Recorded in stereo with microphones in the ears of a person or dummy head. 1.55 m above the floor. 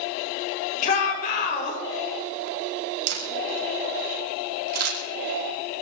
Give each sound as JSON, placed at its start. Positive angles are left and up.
{"t": 0.8, "sound": "a shout", "side_deg": 45, "distance_m": 6.5}
{"t": 3.1, "sound": "a camera shutter", "side_deg": -85, "distance_m": 3.5}